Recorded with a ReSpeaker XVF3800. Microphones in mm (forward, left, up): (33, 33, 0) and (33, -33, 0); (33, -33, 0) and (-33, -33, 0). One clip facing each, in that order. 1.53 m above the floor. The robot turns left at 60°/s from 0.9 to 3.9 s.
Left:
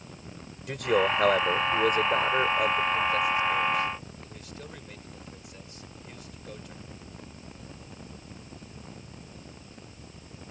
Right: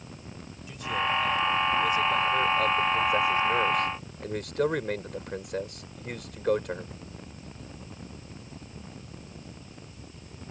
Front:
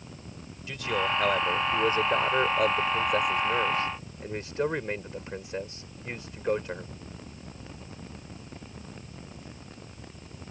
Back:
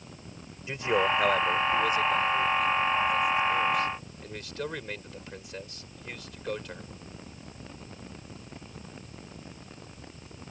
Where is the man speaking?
115° left; by 7.0 s 65° right.